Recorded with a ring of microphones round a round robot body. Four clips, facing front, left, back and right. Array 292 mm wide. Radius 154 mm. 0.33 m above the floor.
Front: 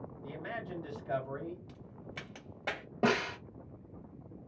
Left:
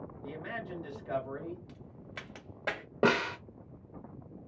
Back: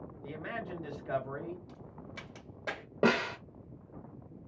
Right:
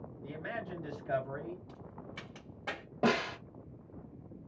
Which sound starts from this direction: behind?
A man speaking, at 0.2 s.